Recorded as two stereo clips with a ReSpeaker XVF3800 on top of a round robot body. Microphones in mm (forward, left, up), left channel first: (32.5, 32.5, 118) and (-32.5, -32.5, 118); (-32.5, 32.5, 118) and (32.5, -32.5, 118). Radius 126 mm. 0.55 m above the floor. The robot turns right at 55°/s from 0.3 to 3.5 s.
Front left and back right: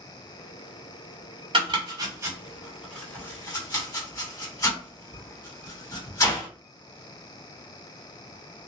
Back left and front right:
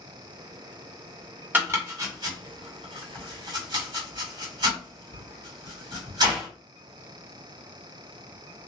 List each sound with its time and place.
1.5 s chopping: 115° right, 1.9 m; by 6.5 s 10° right, 1.9 m